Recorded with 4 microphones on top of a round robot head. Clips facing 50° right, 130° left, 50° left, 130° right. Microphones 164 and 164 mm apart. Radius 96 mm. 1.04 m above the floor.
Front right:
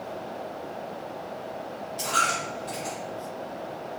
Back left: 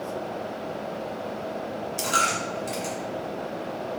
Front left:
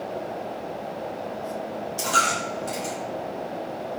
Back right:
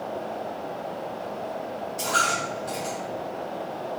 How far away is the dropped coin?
About 0.8 m.